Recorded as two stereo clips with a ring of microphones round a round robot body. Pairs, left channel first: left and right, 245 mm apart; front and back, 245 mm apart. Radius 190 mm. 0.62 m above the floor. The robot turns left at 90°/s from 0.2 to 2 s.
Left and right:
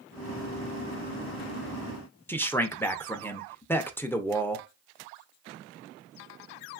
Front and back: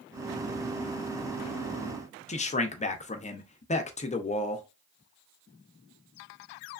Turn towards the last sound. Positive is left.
turn(degrees=15)